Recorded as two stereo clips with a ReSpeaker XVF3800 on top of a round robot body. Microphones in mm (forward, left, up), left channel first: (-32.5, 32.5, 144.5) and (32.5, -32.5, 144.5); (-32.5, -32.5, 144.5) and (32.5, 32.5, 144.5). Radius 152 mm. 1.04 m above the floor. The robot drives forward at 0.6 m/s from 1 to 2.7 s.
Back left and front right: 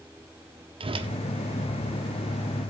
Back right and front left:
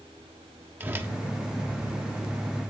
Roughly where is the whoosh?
Ahead right.